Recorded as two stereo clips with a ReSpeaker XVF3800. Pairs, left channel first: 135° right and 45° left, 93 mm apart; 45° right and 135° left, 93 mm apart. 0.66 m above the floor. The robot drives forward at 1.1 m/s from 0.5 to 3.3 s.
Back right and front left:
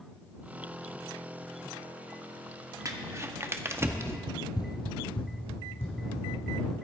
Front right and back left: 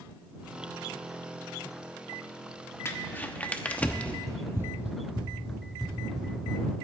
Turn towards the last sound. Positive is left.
turn(degrees=-135)